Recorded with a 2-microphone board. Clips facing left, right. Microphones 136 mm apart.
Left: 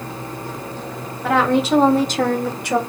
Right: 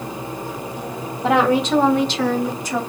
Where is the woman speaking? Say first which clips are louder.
Even; 25° right (ahead or behind), 0.7 m; by 2.8 s 70° left (ahead or behind), 1.1 m.